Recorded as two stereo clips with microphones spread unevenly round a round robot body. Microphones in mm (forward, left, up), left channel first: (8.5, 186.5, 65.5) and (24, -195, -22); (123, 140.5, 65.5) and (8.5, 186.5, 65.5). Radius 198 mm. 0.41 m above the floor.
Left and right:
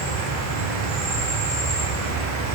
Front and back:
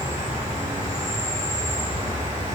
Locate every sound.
0.0 s an insect: 145° right, 1.5 m